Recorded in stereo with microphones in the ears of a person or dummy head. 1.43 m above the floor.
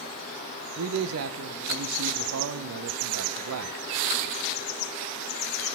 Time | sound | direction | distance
0.8 | a man speaking | 85° right | 0.8 m